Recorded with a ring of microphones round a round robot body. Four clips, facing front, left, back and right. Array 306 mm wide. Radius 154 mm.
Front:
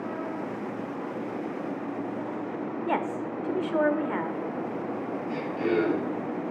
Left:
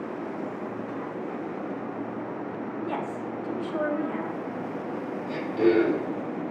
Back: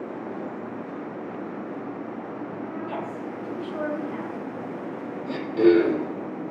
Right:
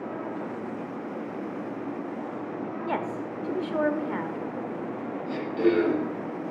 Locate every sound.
2.9 s a woman speaking: 30° right, 1.5 m
5.3 s throat clearing: straight behind, 8 m